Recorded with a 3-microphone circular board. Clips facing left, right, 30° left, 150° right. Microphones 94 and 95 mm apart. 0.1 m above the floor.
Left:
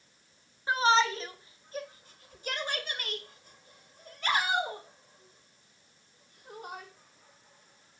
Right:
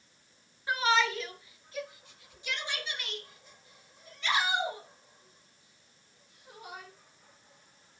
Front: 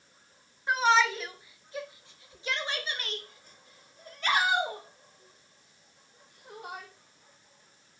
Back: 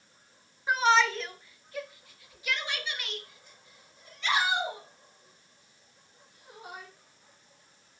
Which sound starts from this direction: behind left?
A shout, at 0.7 s.